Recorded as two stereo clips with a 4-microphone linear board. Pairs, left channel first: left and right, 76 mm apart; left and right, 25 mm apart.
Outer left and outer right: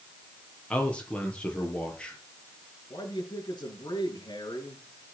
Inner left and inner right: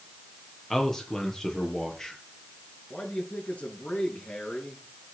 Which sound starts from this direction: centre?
A man speaking, at 0.7 s.